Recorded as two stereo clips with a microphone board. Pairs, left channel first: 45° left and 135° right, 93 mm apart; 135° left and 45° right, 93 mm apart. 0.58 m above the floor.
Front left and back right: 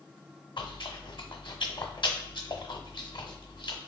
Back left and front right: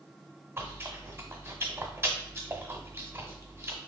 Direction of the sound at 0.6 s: 20° left.